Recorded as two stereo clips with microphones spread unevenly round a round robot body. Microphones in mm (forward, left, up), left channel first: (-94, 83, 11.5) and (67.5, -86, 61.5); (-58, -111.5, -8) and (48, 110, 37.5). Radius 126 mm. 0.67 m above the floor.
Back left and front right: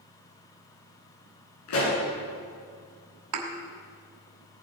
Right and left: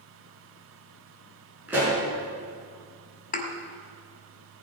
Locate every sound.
1.7 s a pop: 145° left, 6 m
3.3 s a thud: 55° right, 2 m